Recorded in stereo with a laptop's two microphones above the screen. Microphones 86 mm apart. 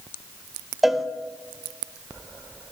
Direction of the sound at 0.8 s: 5° right (ahead or behind).